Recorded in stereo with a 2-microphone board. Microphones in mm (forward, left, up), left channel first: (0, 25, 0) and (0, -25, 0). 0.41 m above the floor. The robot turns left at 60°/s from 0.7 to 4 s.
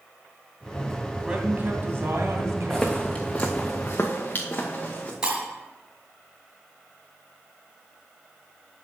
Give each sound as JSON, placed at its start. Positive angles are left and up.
{"t": 1.2, "sound": "a man speaking", "azimuth_deg": -20, "distance_m": 2.5}
{"t": 2.7, "sound": "footsteps", "side_deg": 5, "distance_m": 1.5}
{"t": 5.2, "sound": "breaking glass", "side_deg": -15, "distance_m": 4.5}